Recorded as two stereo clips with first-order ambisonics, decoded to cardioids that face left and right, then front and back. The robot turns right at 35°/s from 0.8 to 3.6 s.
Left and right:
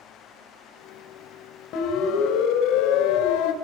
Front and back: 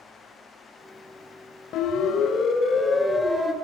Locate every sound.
1.7 s a siren: 50° left, 3 m; by 3.5 s 95° left, 2.5 m